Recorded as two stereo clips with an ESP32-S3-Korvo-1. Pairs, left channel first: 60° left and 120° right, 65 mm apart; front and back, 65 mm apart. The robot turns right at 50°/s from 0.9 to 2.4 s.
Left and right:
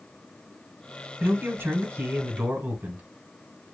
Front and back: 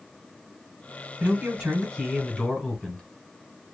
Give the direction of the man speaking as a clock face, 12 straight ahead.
5 o'clock.